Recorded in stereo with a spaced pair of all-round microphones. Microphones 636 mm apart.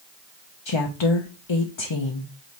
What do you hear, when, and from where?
0.7 s a woman speaking: 45° left (ahead or behind), 0.6 m